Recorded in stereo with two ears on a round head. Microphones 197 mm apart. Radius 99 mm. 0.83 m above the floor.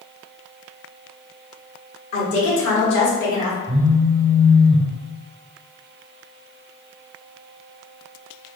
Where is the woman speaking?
70° left (ahead or behind), 1.9 m; by 3.6 s 35° left (ahead or behind), 1.2 m.